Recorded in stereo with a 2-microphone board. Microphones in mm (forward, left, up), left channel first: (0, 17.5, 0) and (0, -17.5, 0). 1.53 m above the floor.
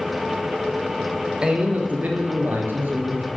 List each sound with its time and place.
1.4 s a man speaking: 30° right (ahead or behind), 0.9 m; by 3.3 s 80° right, 1.4 m